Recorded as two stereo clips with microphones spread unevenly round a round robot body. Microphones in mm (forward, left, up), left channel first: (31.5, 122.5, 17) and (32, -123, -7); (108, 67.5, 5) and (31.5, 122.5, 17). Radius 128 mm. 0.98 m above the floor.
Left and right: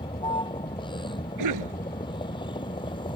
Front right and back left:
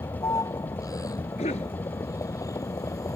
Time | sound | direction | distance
0.0 | a vehicle | 20° left | ?
1.4 | a cough | 85° right | ?